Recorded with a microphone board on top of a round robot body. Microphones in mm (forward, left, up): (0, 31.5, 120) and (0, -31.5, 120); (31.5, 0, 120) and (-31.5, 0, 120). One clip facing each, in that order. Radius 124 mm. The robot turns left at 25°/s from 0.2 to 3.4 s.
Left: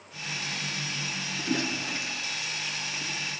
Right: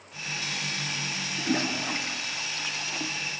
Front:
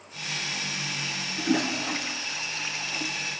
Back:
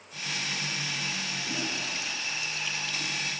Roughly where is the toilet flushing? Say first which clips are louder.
Right 2 dB, front 13 dB; ahead right.